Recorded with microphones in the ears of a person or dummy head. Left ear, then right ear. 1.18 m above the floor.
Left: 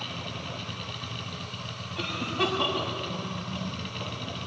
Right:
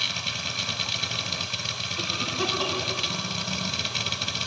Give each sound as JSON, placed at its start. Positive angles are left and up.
{"t": 0.0, "sound": "a machine running", "side_deg": -60, "distance_m": 1.1}
{"t": 2.0, "sound": "a cough", "side_deg": 10, "distance_m": 7.5}